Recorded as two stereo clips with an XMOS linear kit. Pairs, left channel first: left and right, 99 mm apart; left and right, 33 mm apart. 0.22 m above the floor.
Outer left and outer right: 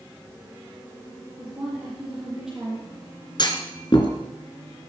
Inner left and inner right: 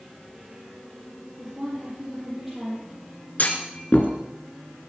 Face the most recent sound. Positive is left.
turn(degrees=50)  # may be behind; listen again after turning